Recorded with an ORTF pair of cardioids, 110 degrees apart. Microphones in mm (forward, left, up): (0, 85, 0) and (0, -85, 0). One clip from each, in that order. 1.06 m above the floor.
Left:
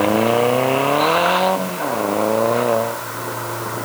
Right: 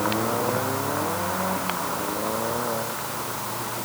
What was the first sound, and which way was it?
Only background noise.